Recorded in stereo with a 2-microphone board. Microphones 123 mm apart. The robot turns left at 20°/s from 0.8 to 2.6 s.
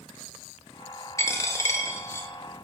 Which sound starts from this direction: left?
A dropped coin, at 1.2 s.